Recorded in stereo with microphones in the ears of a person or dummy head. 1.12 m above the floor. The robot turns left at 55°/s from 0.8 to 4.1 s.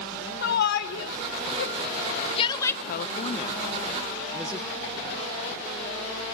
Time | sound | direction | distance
0.4 | a shout | 50° left (ahead or behind) | 2 m
2.8 | a woman speaking | 60° left (ahead or behind) | 0.8 m